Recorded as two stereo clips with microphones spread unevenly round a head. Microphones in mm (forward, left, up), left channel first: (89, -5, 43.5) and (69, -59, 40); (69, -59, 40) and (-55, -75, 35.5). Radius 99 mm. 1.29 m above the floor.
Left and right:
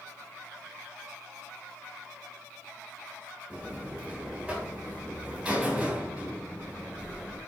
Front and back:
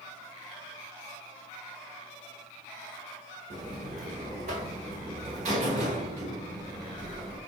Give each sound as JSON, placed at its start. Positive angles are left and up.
{"t": 3.5, "sound": "a buzzer", "azimuth_deg": 165, "distance_m": 1.3}